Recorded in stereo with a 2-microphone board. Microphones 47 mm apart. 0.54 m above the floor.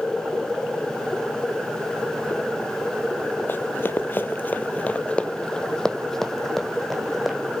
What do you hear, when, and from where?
3.5 s running footsteps: 45° left (ahead or behind), 0.8 m; by 7.4 s centre (ahead or behind), 1.9 m